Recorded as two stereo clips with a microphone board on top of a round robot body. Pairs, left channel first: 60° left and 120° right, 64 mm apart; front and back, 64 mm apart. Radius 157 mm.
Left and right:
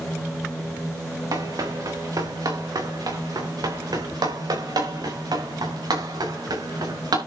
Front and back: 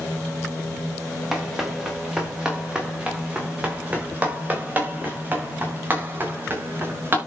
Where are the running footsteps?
95° right, 3.5 m; by 7.2 s 125° right, 6.5 m.